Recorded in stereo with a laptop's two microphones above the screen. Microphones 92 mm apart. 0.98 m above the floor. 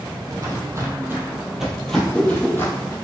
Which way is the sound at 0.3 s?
40° right (ahead or behind).